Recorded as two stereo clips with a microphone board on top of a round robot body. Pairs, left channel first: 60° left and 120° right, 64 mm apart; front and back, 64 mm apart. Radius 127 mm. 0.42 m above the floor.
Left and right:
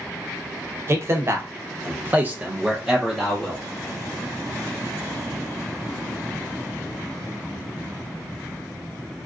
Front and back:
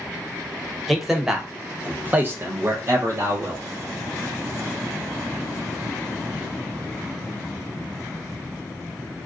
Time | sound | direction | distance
0.9 | a man speaking | 90° right | 1.2 m